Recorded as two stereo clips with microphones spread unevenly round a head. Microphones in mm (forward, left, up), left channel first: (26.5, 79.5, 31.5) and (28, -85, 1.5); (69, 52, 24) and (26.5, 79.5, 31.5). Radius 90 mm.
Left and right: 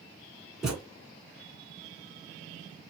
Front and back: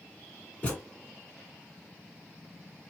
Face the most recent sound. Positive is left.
turn(degrees=15)